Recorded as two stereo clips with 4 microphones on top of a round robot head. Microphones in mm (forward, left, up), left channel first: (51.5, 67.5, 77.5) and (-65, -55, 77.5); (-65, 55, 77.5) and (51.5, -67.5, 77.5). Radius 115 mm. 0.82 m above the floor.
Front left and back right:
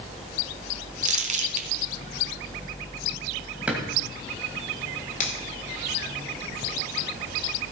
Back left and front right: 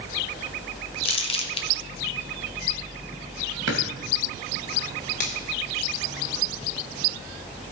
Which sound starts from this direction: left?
A finger snap, at 5.2 s.